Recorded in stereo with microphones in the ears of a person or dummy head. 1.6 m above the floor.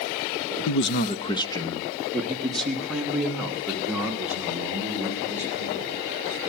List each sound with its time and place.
0.7 s a man speaking: 75° left (ahead or behind), 0.6 m; by 6.0 s 5° right (ahead or behind), 6 m